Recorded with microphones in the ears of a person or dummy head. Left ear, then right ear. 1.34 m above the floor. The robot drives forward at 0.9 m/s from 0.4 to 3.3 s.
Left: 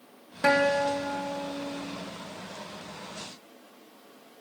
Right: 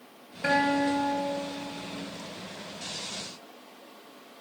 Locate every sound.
0.4 s a guitar: 45° left (ahead or behind), 0.8 m; by 2.0 s 15° left (ahead or behind), 2 m